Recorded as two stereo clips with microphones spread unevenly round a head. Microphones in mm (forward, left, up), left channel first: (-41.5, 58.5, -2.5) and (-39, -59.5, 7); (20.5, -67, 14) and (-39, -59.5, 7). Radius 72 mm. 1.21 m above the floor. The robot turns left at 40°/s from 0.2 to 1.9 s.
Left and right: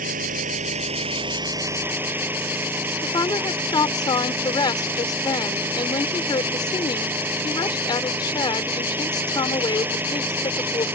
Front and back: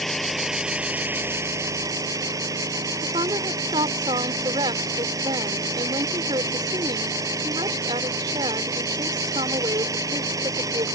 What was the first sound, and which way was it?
An engine running, 95° right.